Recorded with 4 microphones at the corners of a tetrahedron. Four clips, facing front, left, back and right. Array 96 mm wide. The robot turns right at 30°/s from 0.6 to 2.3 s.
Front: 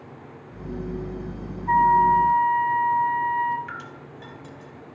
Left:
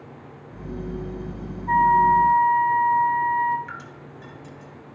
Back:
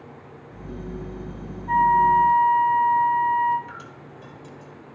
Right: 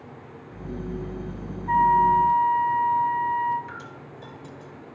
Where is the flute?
40° left, 5 m; by 3.6 s 55° left, 5 m.